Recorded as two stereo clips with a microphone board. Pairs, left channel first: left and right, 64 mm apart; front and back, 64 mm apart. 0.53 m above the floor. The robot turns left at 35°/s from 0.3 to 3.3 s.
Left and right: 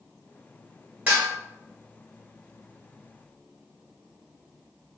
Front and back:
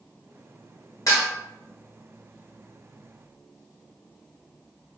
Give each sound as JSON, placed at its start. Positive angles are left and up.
{"t": 1.1, "sound": "dishes clattering", "azimuth_deg": -20, "distance_m": 1.2}